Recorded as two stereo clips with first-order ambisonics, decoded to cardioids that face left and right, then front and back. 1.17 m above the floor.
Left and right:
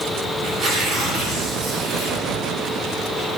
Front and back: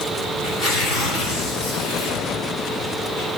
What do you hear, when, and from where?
0.4 s tearing paper: 45° right, 7 m